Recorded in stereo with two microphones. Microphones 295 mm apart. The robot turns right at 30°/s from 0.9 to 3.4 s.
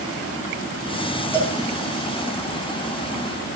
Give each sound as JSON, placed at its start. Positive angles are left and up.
{"t": 1.3, "sound": "a cowbell", "side_deg": 5, "distance_m": 4.5}